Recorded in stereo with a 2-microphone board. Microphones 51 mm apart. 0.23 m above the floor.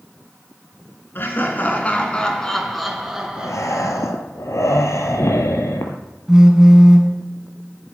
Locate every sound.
1.1 s laughter: 40° left (ahead or behind), 2.5 m; by 4.0 s 25° right (ahead or behind), 3 m
3.4 s breathing: 70° left (ahead or behind), 1.1 m
6.3 s a phone buzzing: 10° right (ahead or behind), 1.3 m